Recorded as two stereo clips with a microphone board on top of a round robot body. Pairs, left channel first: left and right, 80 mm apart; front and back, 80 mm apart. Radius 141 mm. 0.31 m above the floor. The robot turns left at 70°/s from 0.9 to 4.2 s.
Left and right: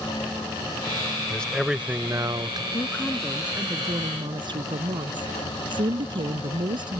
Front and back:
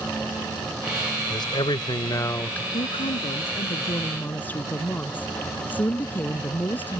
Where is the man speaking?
20° left; by 2.6 s 75° right.